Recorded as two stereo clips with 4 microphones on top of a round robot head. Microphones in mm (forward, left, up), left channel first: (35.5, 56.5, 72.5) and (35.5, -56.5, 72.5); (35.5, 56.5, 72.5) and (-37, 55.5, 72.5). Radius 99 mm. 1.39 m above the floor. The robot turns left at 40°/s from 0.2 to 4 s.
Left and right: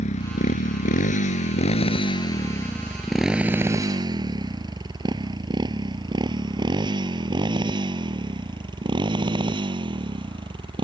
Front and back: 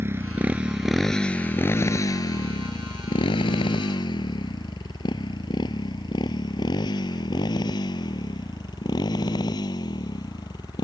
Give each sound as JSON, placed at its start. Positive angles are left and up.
{"t": 0.0, "sound": "a motorcycle", "azimuth_deg": 120}